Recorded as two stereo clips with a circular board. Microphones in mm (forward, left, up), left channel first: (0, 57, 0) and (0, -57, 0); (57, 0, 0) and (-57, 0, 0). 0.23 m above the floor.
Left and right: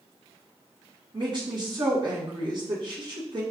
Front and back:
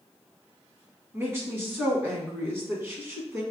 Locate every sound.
1.1 s a woman speaking: 120° right, 1.5 m